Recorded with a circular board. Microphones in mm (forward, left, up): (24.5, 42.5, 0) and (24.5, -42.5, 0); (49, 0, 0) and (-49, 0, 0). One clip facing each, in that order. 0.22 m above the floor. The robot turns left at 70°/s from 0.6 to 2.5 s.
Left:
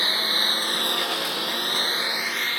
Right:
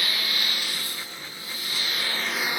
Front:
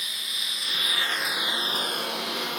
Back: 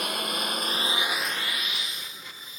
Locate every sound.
0.0 s a lawn mower: 150° left; by 2.6 s 15° right